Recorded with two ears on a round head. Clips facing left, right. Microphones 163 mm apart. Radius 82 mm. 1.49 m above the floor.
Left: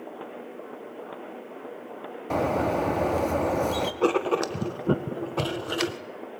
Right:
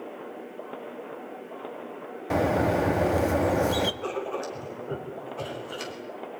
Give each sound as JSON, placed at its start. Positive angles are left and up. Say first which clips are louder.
{"t": 2.3, "sound": "a bird", "louder": "right 1 dB", "side_deg": -5, "distance_m": 1.3}
{"t": 4.0, "sound": "writing", "louder": "left 8 dB", "side_deg": 75, "distance_m": 1.5}